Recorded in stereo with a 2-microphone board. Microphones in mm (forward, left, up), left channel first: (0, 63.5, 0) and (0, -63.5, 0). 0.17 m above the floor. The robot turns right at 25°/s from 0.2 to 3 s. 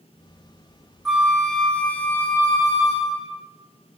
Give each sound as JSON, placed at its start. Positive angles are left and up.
{"t": 1.1, "sound": "a flute", "azimuth_deg": -5, "distance_m": 0.6}